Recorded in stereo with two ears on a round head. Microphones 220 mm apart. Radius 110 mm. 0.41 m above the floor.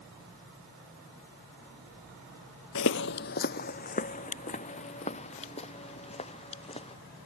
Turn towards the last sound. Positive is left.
turn(degrees=25)  # may be behind; listen again after turning